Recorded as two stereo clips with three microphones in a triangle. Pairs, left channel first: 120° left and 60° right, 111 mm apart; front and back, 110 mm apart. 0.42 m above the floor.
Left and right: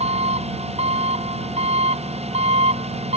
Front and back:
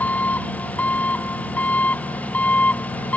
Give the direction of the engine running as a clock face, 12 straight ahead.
3 o'clock.